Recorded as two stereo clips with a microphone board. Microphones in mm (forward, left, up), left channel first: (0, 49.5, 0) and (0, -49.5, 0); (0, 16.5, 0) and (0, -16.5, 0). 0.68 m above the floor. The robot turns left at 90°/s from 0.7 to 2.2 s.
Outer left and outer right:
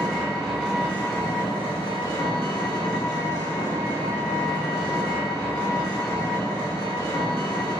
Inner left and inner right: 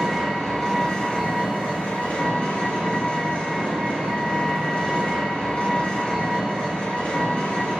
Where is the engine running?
Straight behind, 1.9 m; by 7.8 s 45° left, 1.9 m.